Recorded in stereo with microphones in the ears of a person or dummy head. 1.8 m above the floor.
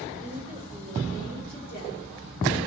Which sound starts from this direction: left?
A woman speaking, at 0.2 s.